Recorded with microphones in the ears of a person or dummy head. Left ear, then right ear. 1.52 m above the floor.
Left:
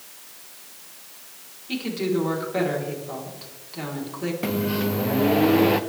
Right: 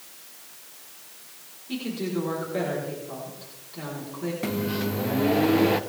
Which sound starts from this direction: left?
A woman speaking, at 1.7 s.